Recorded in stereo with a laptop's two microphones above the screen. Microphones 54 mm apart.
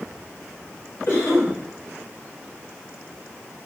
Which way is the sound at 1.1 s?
50° left (ahead or behind).